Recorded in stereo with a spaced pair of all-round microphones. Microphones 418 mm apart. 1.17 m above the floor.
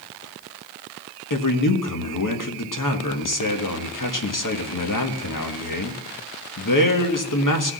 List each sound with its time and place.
1.3 s a man speaking: 50° left (ahead or behind), 1.4 m